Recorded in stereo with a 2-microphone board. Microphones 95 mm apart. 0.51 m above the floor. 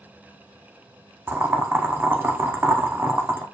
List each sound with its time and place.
1.3 s boiling: 25° right (ahead or behind), 0.6 m